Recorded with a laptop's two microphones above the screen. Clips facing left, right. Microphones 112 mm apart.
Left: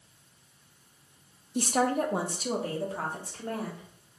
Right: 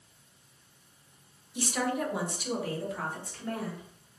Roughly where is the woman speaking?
Left.